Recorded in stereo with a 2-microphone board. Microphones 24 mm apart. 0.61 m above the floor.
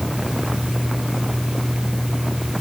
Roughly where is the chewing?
No chewing in this recording.